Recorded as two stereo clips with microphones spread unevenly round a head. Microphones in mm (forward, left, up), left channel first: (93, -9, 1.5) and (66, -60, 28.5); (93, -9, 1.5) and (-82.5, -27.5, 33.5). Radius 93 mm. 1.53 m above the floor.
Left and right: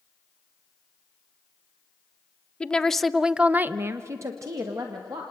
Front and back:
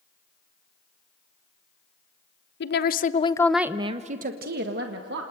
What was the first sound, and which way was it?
A woman speaking, 20° right.